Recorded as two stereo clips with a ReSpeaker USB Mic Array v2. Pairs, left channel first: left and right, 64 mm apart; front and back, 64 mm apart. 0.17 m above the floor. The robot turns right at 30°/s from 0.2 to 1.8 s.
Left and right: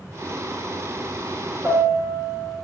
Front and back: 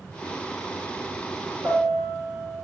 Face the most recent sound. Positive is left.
turn(degrees=-135)